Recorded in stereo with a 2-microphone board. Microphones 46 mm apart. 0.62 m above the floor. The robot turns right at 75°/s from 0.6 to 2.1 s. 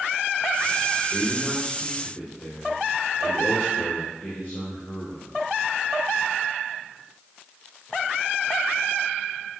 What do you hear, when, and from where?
1.1 s a man speaking: 35° right, 3 m; by 5.3 s 35° left, 3 m